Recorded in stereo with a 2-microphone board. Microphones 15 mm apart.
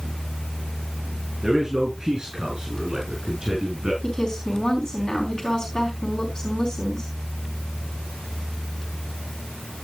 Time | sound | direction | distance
1.4 | a man speaking | 50° right (ahead or behind) | 8.5 m
4.0 | a woman speaking | 70° left (ahead or behind) | 4 m